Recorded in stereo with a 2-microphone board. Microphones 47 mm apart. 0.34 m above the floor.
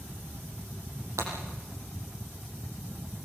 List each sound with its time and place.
1.2 s breaking glass: 80° right, 7 m